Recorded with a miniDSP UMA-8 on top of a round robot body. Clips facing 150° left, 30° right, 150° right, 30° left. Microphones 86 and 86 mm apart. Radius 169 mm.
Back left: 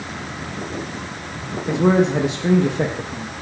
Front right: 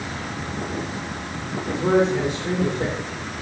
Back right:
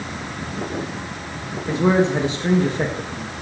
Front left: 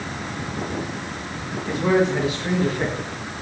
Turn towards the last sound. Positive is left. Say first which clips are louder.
# back left 3 dB, back right 2 dB
turn(degrees=150)